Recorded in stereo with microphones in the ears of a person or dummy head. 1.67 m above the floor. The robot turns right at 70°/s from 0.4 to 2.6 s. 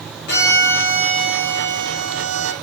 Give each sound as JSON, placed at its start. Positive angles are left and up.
{"t": 0.3, "sound": "a violin", "azimuth_deg": 125, "distance_m": 0.6}